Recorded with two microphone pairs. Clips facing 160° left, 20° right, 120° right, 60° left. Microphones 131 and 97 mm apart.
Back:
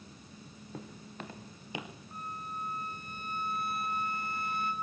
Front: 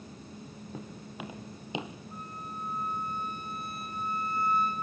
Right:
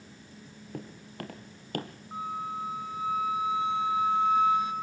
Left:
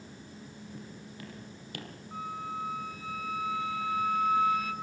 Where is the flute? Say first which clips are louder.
Back 3 dB, right 3 dB; 175° left, 3.5 m.